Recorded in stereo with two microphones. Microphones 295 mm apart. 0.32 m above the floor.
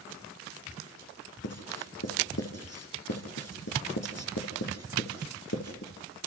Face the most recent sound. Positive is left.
turn(degrees=60)  # may be behind; listen again after turning